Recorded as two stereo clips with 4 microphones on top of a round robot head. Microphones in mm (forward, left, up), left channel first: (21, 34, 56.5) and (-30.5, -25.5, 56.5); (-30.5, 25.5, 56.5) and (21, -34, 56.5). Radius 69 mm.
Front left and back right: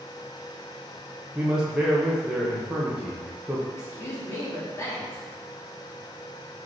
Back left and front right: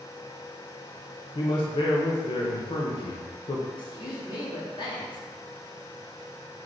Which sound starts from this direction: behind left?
A man speaking, at 1.4 s.